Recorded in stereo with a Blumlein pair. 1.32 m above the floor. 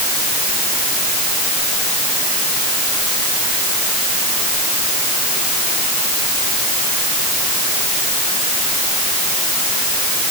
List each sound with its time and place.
Only background noise.